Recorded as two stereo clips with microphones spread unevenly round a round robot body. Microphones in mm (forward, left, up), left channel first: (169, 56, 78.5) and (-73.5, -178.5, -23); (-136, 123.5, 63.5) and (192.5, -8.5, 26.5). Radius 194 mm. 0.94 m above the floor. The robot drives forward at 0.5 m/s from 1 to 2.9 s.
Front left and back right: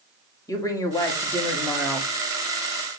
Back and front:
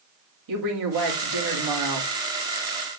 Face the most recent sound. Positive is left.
turn(degrees=-65)